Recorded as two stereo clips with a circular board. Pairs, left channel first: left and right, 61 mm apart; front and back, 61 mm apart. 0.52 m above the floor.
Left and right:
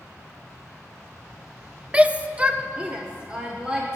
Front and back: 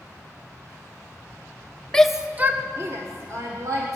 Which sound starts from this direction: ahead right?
A shout, at 1.9 s.